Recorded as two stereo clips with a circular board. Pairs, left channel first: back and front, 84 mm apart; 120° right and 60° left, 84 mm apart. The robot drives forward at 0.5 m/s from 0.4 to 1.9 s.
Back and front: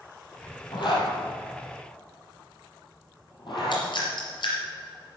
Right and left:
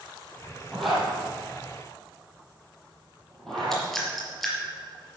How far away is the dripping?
About 4.5 m.